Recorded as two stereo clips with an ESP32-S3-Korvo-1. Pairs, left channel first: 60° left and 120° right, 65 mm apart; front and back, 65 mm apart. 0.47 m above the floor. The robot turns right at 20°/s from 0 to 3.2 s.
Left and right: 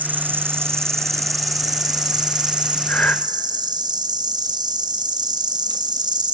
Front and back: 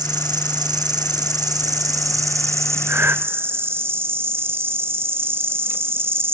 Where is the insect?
175° left, 1.1 m; by 6.4 s 125° right, 1.1 m.